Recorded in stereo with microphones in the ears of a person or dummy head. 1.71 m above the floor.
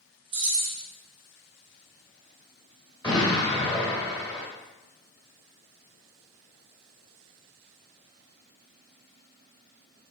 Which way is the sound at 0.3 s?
30° right (ahead or behind).